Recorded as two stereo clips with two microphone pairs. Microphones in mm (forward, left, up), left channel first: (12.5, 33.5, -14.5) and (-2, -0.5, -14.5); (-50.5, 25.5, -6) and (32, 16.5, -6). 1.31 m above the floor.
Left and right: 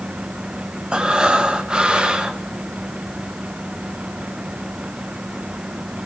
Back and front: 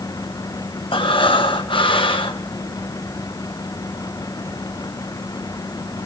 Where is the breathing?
175° left, 1.0 m.